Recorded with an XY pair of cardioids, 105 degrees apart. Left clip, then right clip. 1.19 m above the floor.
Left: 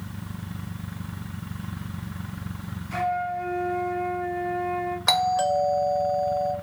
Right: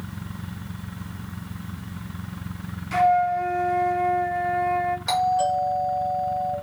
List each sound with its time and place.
2.9 s a flute: 50° right, 0.7 m
5.1 s a doorbell: 55° left, 1.1 m